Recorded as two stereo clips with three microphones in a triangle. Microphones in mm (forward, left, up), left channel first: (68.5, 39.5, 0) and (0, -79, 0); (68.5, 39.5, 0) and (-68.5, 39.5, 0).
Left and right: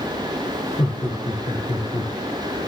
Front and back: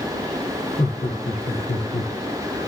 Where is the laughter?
5° right, 4.5 m; by 2.1 s 5° left, 3 m.